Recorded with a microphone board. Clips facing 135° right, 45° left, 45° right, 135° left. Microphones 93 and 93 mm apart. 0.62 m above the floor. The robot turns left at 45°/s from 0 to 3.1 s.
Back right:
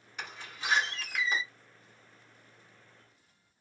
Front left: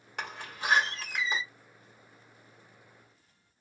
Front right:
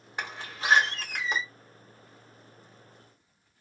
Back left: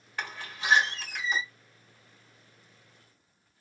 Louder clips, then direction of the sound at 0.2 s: Front left 4 dB, front right 1 dB; 25° left.